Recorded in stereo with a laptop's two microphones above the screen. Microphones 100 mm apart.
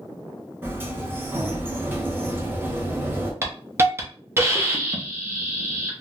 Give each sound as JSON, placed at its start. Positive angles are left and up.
{"t": 0.6, "sound": "a sliding door", "side_deg": -20, "distance_m": 0.7}
{"t": 3.4, "sound": "a hiss", "side_deg": -25, "distance_m": 0.6}